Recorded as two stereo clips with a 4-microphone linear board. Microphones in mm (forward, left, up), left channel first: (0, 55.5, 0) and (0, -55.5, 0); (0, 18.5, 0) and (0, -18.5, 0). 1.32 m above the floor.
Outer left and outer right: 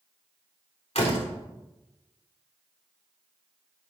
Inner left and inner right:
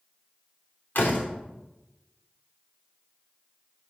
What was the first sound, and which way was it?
A door slam, 65° left (ahead or behind).